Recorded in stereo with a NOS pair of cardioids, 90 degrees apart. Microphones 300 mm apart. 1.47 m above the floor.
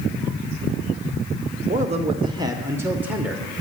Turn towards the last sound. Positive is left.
turn(degrees=-5)